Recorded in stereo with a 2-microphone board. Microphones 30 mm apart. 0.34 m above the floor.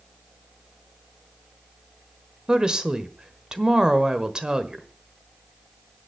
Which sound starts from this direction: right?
A woman speaking, at 2.5 s.